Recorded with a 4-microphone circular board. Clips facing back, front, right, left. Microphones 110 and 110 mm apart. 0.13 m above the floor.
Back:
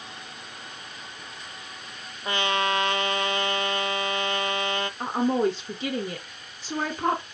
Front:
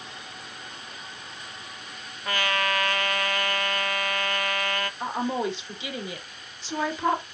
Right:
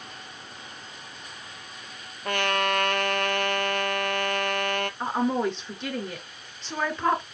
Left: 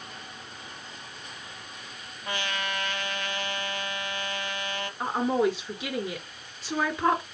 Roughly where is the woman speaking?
Behind.